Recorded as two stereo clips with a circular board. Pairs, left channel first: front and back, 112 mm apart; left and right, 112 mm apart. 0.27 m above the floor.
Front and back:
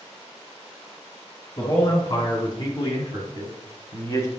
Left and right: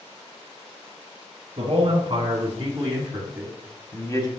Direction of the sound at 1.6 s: 50° right.